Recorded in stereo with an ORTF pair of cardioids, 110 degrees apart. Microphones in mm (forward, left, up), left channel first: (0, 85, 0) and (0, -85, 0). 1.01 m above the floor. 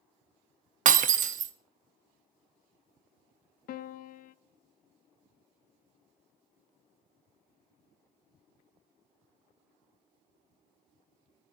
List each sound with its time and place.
0.8 s breaking glass: 50° right, 0.8 m
3.7 s a piano: 55° left, 0.6 m